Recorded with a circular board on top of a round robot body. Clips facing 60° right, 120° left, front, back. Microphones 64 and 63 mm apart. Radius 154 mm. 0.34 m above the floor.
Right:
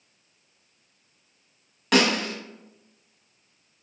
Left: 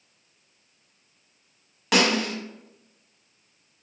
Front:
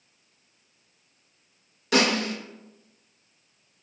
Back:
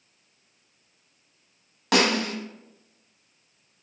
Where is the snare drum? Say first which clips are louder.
Even, back 1 dB; 155° right, 1.3 m.